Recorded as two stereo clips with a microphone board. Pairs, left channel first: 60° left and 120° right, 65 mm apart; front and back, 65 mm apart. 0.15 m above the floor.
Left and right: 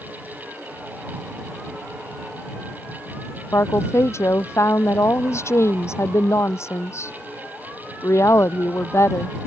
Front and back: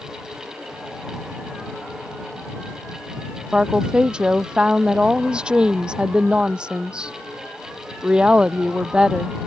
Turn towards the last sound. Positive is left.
turn(degrees=105)